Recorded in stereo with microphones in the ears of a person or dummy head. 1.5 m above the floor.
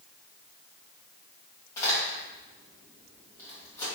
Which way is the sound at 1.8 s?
20° left (ahead or behind).